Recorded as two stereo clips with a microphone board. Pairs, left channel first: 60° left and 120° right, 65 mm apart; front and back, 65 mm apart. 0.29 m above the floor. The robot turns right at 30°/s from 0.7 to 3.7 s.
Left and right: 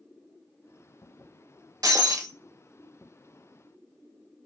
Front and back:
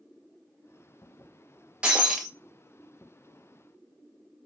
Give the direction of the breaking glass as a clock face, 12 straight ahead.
4 o'clock.